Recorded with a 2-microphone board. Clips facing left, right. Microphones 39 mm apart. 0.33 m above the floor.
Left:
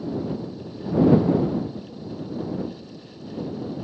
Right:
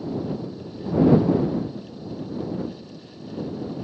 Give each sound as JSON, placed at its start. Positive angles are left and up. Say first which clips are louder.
{"t": 1.8, "sound": "a whoosh", "louder": "even", "side_deg": 15}